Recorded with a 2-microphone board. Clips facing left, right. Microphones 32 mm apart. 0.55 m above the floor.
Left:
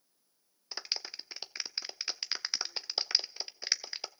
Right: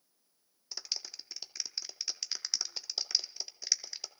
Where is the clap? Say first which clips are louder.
Left 2 dB; 30° left (ahead or behind), 0.7 m.